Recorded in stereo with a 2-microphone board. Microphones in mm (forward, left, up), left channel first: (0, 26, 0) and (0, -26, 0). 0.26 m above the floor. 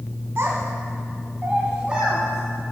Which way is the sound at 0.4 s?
60° right (ahead or behind).